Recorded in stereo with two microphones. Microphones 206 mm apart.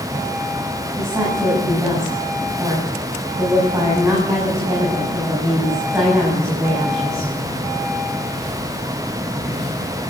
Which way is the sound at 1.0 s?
15° right (ahead or behind).